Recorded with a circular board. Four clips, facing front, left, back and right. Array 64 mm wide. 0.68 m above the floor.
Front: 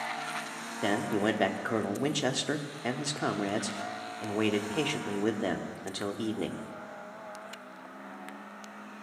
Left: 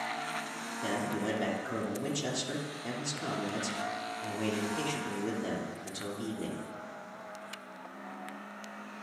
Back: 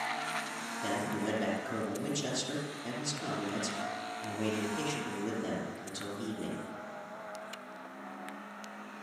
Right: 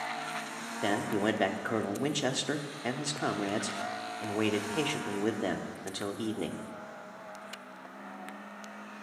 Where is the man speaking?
40° right, 1.2 m.